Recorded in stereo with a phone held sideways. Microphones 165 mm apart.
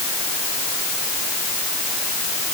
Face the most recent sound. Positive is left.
No sound to turn to.